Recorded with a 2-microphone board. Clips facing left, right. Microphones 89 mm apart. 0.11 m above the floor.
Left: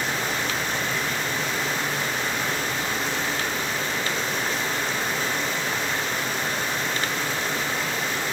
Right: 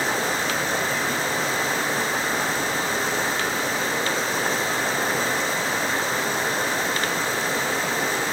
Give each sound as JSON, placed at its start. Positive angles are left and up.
{"t": 0.0, "sound": "running water", "side_deg": -35, "distance_m": 3.0}